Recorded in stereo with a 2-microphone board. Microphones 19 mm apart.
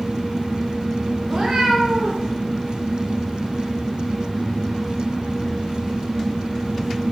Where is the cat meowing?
20° right (ahead or behind), 2.5 m; by 2.3 s 35° right (ahead or behind), 2 m.